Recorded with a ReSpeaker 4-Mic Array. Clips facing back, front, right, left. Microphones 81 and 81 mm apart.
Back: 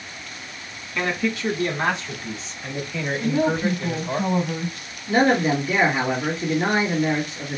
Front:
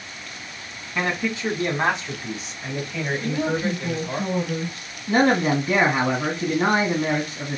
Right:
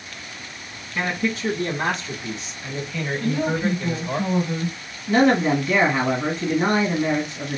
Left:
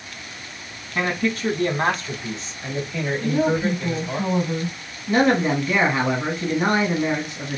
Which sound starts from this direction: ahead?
A man speaking, at 5.1 s.